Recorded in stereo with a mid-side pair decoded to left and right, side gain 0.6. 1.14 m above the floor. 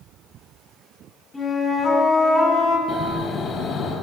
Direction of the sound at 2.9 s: 35° left.